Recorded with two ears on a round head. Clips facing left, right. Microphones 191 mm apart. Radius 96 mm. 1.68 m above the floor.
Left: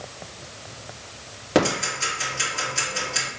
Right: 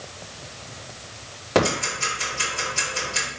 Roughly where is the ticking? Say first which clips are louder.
Even; centre.